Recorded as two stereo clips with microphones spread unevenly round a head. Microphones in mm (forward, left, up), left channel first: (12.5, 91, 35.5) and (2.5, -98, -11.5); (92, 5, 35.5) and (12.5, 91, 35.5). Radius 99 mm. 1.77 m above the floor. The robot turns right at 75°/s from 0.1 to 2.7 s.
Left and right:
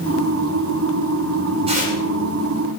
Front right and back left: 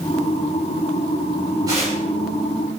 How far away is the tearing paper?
About 7 m.